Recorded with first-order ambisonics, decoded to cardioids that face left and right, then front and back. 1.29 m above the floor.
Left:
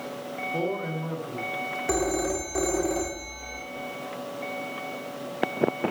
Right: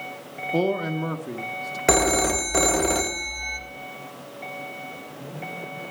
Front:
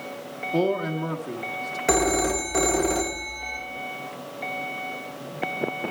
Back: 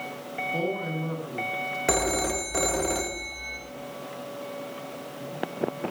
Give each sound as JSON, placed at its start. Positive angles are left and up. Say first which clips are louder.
{"t": 0.5, "sound": "a man speaking", "louder": "right 7 dB, front 8 dB", "azimuth_deg": -65, "distance_m": 1.2}
{"t": 1.9, "sound": "a phone ringing", "louder": "right 8 dB, front 4 dB", "azimuth_deg": -90, "distance_m": 1.0}